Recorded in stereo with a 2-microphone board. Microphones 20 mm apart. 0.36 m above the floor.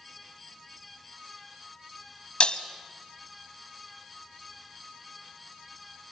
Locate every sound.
2.4 s breaking glass: 65° left (ahead or behind), 1.0 m